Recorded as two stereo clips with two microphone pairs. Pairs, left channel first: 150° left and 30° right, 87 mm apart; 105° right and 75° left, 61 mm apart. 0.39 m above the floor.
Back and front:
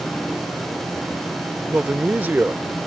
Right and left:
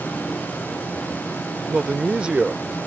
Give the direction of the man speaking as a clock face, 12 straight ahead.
11 o'clock.